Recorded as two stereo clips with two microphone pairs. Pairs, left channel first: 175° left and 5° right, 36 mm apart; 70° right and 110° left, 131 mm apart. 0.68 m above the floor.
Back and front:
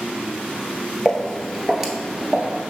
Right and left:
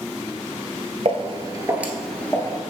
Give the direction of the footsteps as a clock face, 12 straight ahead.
9 o'clock.